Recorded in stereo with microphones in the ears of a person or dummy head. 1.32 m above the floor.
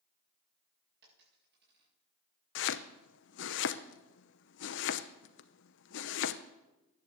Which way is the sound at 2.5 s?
70° left (ahead or behind).